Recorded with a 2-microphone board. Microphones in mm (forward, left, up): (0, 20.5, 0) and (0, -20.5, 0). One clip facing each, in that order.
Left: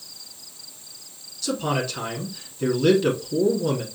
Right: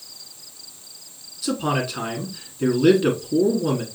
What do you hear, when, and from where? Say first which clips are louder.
1.4 s a man speaking: right 2 dB; 15° right (ahead or behind), 1.1 m